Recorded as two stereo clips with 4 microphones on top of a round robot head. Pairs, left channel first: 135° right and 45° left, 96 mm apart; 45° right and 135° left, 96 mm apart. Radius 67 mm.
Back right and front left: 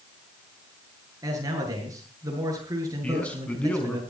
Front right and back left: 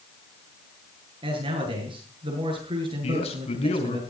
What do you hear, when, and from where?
1.2 s a man speaking: 100° left, 8 m
3.0 s a man speaking: 55° right, 5 m